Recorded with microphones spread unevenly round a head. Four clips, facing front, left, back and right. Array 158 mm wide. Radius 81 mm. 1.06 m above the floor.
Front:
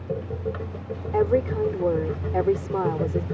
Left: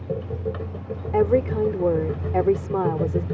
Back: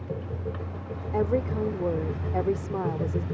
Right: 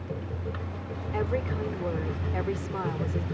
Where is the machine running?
45° left.